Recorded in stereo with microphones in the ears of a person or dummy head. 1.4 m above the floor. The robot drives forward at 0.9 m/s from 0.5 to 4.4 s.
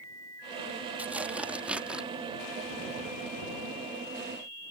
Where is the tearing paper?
10° right (ahead or behind).